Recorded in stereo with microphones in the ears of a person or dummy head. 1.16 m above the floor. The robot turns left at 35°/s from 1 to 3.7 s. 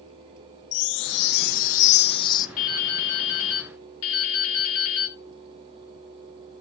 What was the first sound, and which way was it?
A chime, 75° left.